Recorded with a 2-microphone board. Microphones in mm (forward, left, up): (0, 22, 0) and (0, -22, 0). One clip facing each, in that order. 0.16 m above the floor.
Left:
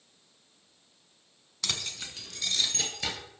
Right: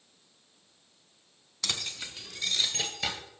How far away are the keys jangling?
About 0.8 m.